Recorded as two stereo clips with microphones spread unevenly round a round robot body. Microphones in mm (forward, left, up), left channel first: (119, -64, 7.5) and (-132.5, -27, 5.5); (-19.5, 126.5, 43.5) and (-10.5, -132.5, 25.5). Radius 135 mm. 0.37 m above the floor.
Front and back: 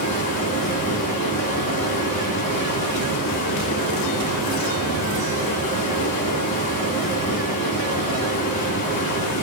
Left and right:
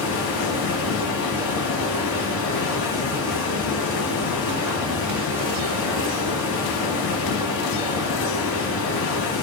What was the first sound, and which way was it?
Running water, 55° left.